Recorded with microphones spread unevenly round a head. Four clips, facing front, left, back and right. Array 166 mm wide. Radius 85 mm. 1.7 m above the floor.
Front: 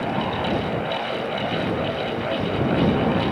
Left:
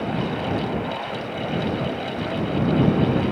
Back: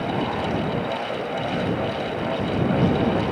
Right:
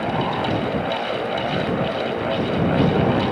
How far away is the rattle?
No rattle in this recording.